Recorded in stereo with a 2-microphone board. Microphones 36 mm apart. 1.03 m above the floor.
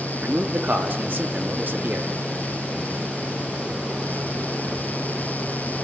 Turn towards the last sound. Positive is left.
turn(degrees=-60)  # may be behind; listen again after turning